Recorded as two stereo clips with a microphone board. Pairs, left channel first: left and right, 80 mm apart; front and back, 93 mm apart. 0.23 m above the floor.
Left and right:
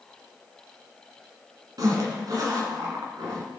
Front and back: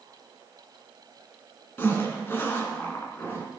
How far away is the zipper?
About 2 m.